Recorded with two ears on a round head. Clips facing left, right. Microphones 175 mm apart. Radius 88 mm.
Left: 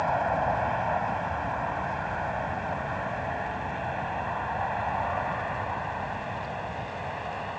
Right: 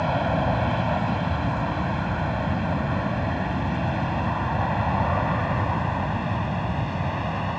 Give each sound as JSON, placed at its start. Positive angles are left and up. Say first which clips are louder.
{"t": 0.0, "sound": "an aircraft", "louder": "right 3 dB", "side_deg": -45}